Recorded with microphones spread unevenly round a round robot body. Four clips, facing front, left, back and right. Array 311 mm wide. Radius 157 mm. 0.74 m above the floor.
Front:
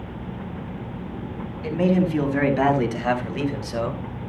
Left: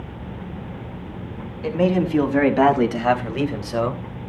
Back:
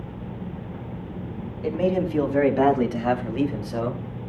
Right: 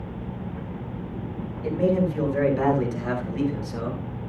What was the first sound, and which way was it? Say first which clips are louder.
A man speaking: left 3 dB, front 2 dB; 75° left.